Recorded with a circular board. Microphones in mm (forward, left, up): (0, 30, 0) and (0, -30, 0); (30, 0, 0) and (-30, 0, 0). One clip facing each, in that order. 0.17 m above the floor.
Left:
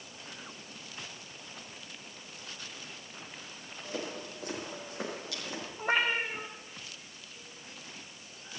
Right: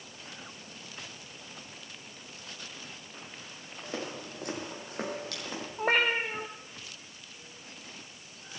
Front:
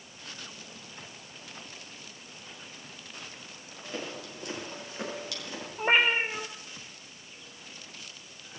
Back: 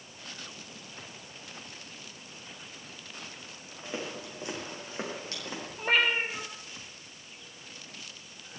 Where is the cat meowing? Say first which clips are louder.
Right 2 dB, front 2 dB; 65° right, 1.8 m.